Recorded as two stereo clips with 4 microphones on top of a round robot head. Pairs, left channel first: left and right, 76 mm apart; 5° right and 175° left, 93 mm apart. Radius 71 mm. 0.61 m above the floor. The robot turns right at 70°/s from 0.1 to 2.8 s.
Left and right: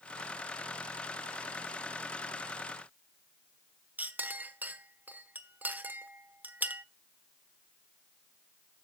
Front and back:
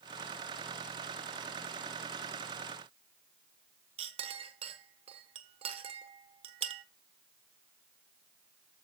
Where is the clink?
155° right, 1.0 m.